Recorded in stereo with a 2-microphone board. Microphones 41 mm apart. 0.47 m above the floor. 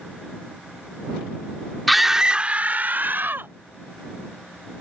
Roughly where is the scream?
Centre.